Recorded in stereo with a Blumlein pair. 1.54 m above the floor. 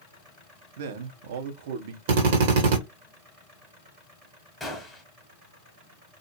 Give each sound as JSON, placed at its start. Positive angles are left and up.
{"t": 0.8, "sound": "a man speaking", "azimuth_deg": -55, "distance_m": 0.7}
{"t": 2.1, "sound": "a drill", "azimuth_deg": -50, "distance_m": 1.0}
{"t": 4.6, "sound": "a gunshot", "azimuth_deg": 5, "distance_m": 1.0}